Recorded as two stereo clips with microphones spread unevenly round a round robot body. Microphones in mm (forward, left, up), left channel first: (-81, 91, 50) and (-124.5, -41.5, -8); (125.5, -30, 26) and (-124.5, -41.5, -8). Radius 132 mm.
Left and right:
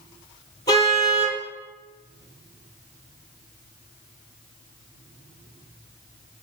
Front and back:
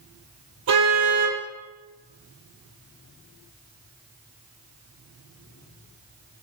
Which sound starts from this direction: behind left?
A car horn, at 0.7 s.